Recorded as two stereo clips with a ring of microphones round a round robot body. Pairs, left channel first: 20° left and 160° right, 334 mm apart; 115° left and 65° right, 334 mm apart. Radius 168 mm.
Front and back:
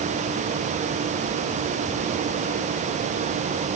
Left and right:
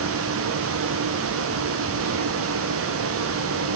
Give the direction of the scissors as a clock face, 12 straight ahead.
I don't hear scissors.